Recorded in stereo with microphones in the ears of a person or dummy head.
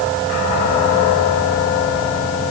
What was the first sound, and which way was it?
Only background noise.